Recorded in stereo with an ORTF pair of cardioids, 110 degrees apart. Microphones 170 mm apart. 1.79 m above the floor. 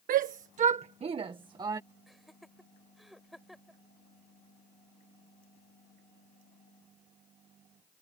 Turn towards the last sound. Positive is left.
turn(degrees=0)